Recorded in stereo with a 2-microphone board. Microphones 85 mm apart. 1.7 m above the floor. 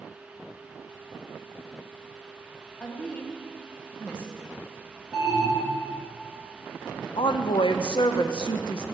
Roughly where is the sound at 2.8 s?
Centre.